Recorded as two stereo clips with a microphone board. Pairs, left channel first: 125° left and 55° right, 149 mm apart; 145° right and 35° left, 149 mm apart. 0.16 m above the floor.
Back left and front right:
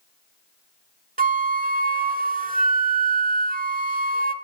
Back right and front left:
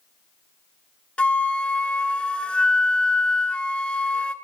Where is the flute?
65° right, 0.6 m.